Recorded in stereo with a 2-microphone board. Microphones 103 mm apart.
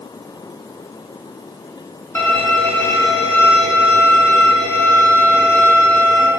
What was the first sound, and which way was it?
A violin, 20° left (ahead or behind).